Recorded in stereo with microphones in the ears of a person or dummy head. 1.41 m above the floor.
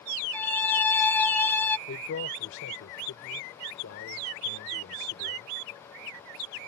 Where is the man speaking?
85° left.